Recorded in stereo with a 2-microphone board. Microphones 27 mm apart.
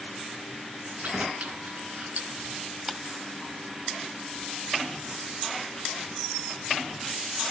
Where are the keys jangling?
65° right (ahead or behind), 3 m; by 2.5 s 60° right (ahead or behind), 3.5 m.